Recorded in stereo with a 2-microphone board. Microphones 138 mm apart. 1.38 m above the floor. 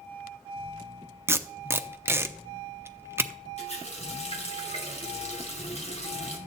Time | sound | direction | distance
1.3 | tape being pulled | 15° right (ahead or behind) | 0.7 m
3.6 | a running tap | 50° left (ahead or behind) | 2.5 m